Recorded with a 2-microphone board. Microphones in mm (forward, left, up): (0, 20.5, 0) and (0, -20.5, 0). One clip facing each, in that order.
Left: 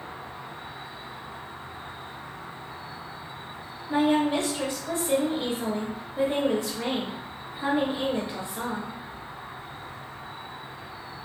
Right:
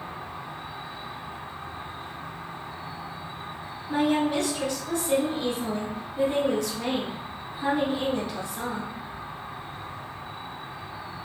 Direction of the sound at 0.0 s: 80° right.